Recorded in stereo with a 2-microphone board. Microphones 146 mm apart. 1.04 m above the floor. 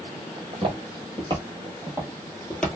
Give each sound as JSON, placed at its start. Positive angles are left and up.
{"t": 0.4, "sound": "footsteps", "side_deg": -50, "distance_m": 1.7}